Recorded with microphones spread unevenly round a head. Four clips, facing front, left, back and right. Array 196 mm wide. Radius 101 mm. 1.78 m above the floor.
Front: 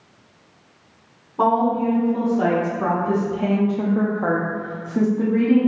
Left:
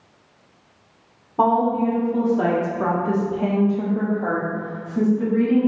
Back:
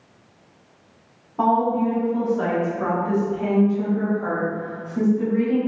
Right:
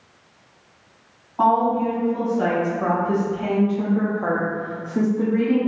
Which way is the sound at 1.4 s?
90° left.